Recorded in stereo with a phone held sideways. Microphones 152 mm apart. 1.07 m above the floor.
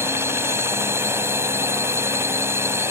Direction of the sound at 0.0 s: 15° right (ahead or behind).